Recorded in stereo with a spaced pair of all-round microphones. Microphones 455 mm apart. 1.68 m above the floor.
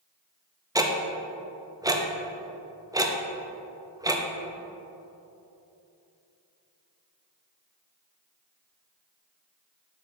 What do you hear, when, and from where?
0.8 s ticking: 10° right (ahead or behind), 0.7 m